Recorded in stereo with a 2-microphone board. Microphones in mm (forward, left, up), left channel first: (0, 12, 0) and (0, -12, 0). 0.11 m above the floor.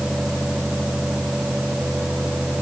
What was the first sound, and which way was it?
Only background noise.